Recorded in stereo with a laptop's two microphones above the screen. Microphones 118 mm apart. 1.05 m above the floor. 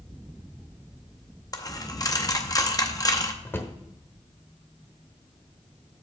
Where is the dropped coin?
30° left (ahead or behind), 0.6 m.